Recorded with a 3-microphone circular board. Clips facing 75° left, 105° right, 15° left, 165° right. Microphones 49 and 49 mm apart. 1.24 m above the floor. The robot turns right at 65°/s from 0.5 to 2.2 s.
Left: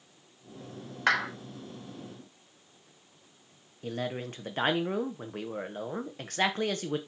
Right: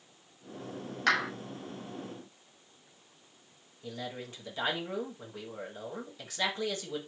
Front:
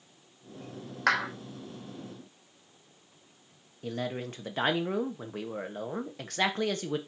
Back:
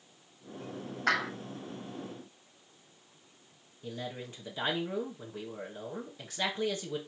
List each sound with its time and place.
1.1 s a clap: 5° left, 3.5 m; by 1.3 s 15° left, 3.5 m
3.8 s a man speaking: 40° left, 1.1 m